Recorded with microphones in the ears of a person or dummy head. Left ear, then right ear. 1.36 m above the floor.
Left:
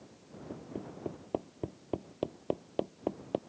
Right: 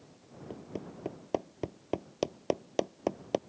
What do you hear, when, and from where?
0.5 s hammering: 75° right (ahead or behind)